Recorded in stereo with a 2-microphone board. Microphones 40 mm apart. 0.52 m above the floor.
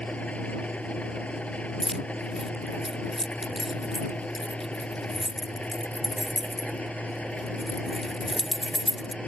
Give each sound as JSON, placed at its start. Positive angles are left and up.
{"t": 0.0, "sound": "an engine running", "side_deg": 35}
{"t": 1.8, "sound": "keys jangling", "side_deg": 0}